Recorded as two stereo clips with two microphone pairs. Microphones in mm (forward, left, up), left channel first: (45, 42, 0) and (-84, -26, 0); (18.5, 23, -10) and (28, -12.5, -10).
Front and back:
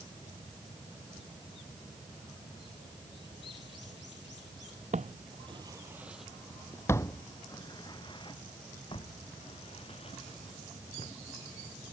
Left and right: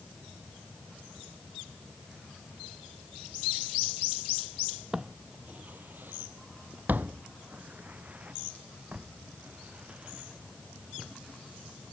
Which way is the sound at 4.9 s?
140° right.